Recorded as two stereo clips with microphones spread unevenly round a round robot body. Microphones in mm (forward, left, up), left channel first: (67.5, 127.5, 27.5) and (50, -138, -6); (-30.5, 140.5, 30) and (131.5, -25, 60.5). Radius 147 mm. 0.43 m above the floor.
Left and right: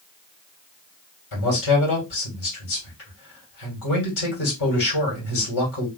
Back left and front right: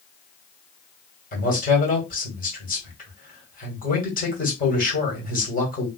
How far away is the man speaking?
About 2.5 m.